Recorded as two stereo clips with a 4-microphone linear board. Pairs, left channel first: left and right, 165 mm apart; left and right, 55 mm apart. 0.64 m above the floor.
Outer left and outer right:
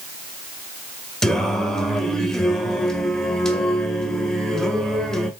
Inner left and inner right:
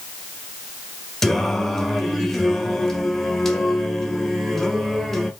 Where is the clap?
No clap in this recording.